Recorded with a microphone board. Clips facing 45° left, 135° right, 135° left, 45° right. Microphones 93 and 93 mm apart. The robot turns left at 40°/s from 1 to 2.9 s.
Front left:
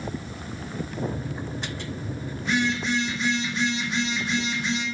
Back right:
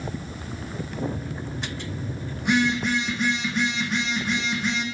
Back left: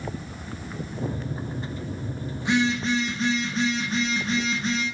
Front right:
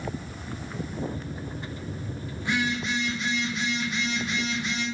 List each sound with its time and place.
2.4 s a phone buzzing: 150° right, 3.5 m; by 4.8 s 170° right, 3.5 m